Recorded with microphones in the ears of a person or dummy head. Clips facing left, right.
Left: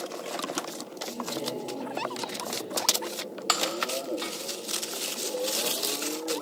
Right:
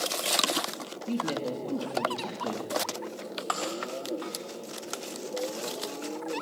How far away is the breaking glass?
About 1.1 m.